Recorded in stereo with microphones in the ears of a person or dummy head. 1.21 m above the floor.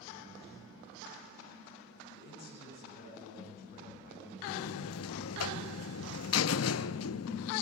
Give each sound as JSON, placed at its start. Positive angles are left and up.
{"t": 2.1, "sound": "a man speaking", "side_deg": 55, "distance_m": 9.5}
{"t": 4.5, "sound": "a buzzer", "side_deg": 75, "distance_m": 0.8}